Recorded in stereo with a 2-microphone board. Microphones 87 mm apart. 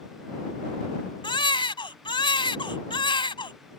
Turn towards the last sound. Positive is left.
turn(degrees=80)